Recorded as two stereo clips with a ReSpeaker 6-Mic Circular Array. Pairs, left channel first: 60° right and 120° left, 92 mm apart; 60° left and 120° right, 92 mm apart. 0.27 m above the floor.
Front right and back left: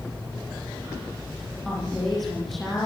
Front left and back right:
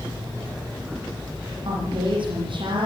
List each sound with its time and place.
1.6 s a woman speaking: 150° right, 9 m